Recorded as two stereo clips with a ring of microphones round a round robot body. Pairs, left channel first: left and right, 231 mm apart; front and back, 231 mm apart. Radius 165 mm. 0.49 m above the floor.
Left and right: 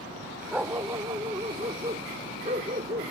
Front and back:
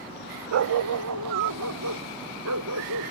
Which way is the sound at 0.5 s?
175° right.